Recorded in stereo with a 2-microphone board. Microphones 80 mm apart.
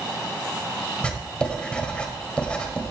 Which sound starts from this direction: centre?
Writing, at 1.0 s.